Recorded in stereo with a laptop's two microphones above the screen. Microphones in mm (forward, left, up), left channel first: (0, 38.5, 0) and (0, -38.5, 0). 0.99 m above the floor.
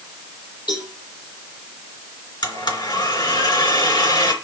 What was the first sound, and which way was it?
A cowbell, 85° left.